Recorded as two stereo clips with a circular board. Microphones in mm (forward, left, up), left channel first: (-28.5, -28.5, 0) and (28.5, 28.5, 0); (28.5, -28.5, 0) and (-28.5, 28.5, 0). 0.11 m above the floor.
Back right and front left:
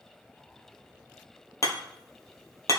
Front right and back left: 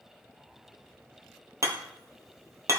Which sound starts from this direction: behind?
Hammering, at 1.6 s.